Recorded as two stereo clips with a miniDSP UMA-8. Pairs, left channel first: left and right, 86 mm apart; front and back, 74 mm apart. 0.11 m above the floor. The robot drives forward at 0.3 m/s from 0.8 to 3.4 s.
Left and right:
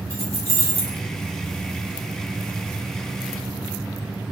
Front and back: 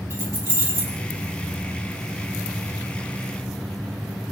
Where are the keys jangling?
135° right, 1.1 m.